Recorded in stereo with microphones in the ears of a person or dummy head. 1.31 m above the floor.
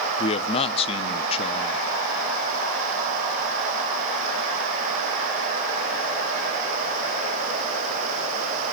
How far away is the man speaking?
About 0.6 m.